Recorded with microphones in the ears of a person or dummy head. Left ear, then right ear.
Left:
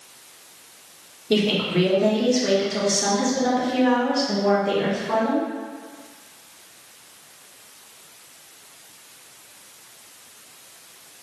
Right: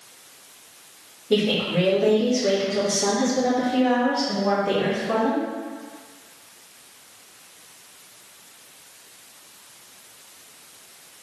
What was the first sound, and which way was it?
A woman speaking, 75° left (ahead or behind).